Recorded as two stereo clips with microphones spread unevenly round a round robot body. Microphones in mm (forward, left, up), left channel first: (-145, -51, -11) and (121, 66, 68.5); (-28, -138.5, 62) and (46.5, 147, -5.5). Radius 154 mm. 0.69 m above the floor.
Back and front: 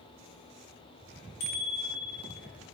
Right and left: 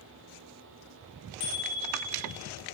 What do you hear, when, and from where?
1.4 s a bicycle bell: 110° right, 4.5 m